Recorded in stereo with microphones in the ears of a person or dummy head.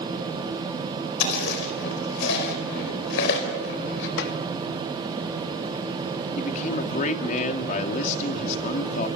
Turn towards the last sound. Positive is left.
turn(degrees=50)  # may be behind; listen again after turning